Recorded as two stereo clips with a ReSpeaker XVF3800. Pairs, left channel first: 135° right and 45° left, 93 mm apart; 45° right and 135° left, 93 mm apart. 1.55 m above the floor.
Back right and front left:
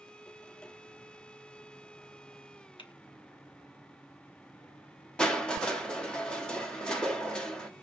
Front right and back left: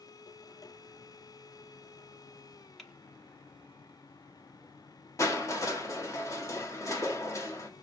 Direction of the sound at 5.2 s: 60° right.